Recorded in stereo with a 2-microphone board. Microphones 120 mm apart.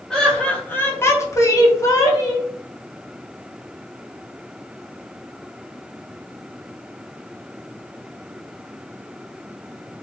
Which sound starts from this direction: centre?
Laughter, at 0.1 s.